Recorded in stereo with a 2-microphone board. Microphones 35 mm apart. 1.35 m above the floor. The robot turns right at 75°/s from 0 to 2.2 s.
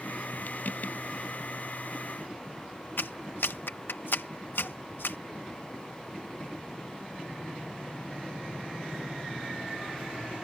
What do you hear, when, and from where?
3.0 s a clap: 80° left